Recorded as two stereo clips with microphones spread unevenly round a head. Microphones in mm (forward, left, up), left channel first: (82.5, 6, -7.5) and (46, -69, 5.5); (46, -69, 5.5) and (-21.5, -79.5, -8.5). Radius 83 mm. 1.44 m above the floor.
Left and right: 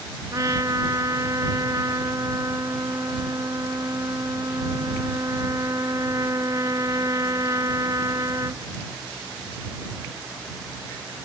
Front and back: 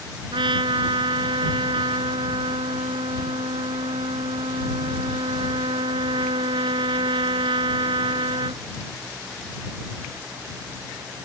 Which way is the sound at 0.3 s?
170° left.